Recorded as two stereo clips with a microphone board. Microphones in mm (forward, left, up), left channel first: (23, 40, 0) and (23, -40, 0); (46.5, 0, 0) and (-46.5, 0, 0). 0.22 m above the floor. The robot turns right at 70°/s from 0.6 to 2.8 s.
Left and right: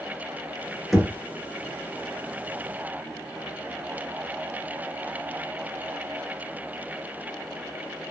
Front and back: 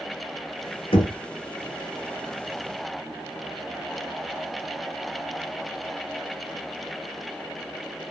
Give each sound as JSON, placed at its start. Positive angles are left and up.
{"t": 0.9, "sound": "knocking", "azimuth_deg": 0, "distance_m": 2.0}